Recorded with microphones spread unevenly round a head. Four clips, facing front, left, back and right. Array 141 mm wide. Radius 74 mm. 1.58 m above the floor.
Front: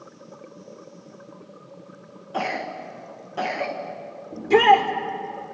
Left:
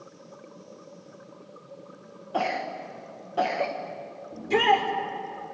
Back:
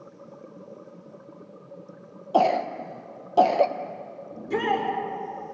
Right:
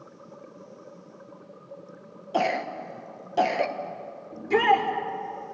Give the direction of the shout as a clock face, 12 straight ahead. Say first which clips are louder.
Right 1 dB, front 10 dB; 12 o'clock.